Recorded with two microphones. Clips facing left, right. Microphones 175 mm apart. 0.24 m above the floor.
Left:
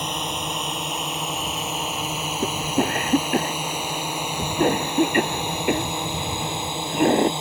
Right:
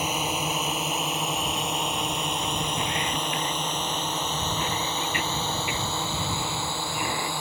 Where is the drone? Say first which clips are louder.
Right 1 dB; 5° right (ahead or behind); by 7.4 s 20° left (ahead or behind).